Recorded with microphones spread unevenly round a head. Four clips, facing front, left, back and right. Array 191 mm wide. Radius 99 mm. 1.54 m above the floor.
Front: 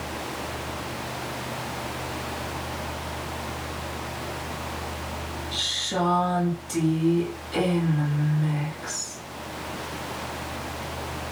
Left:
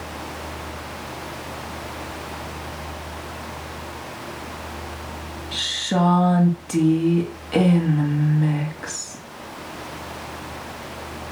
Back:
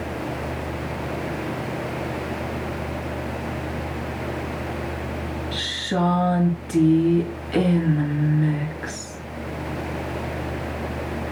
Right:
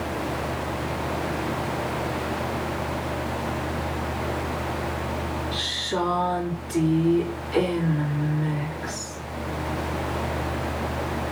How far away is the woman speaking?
About 2 m.